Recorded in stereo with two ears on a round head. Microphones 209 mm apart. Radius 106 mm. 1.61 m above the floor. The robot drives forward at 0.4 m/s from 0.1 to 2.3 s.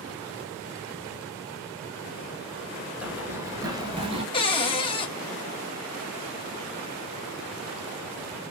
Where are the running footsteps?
5° right (ahead or behind), 1.7 m; by 4.2 s 25° right (ahead or behind), 1.7 m.